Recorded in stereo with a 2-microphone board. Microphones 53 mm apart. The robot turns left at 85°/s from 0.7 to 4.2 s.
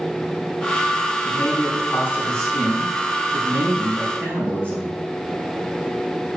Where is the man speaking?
115° left, 4 m; by 4.9 s 135° right, 4 m.